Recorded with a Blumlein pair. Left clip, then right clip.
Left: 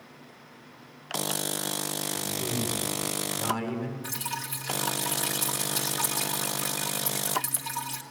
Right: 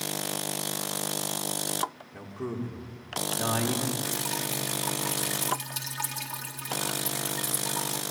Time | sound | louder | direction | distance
2.1 | a man speaking | left 5 dB | 30° right | 6.5 m
4.0 | dripping | right 3 dB | straight ahead | 2.5 m